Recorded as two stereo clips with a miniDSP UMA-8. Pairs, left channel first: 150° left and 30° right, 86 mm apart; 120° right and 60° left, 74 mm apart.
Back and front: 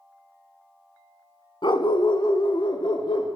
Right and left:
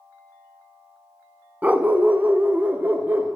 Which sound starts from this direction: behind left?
A dog barking, at 1.6 s.